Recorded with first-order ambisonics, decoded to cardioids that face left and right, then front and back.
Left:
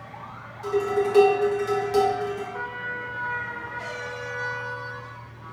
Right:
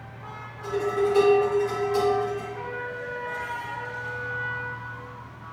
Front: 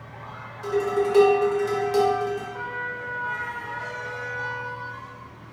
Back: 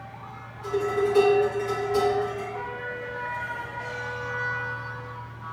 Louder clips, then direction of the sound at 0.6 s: Left 1 dB, front 1 dB; 45° left.